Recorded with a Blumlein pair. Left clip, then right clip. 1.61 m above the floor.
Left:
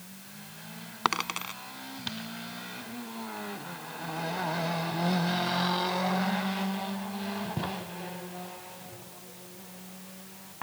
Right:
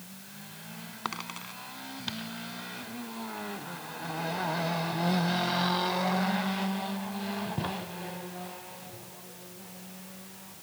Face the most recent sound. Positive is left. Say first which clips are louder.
# left 8 dB
turn(degrees=25)